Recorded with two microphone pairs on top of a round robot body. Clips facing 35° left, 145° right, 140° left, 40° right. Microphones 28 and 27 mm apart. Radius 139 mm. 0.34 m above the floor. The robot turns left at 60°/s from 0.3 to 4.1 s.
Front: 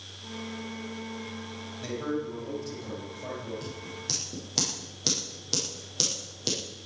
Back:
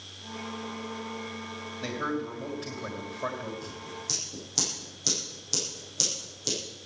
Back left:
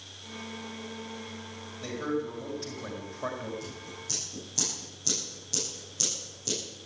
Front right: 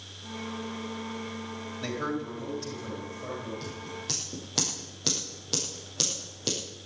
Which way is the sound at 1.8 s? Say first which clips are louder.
Even, back left 1 dB; 95° right.